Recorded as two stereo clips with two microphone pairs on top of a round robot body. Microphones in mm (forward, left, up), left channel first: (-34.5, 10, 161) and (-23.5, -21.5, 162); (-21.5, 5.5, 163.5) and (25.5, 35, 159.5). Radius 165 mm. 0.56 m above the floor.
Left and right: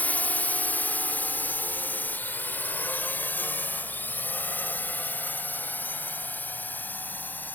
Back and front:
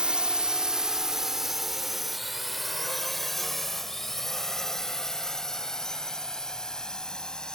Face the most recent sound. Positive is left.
turn(degrees=135)